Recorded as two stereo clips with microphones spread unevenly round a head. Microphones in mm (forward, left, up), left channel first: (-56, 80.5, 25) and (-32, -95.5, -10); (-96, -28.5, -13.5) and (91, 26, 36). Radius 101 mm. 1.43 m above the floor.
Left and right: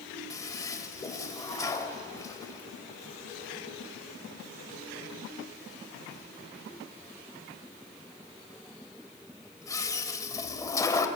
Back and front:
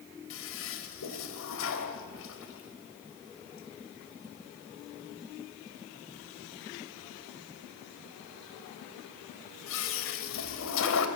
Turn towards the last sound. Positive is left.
turn(degrees=165)